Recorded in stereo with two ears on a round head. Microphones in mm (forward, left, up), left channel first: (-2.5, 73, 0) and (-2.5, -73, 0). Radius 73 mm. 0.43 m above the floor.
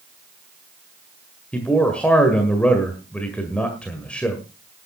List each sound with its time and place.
1.5 s a man speaking: 5° left (ahead or behind), 1.7 m